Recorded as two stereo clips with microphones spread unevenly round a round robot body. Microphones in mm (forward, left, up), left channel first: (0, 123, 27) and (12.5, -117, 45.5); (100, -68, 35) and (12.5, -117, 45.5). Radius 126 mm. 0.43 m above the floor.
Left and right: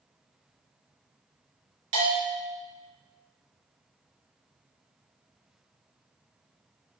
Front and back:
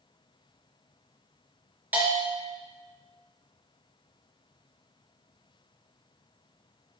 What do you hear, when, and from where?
1.9 s a bell: 80° right, 3.5 m